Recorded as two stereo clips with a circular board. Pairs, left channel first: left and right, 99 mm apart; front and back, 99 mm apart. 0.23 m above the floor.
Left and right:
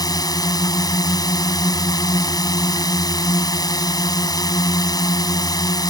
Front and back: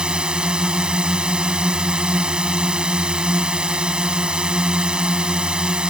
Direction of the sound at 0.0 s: 105° left.